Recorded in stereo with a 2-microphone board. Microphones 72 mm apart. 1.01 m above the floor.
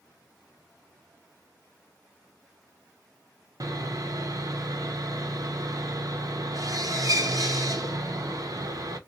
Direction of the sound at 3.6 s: 55° right (ahead or behind).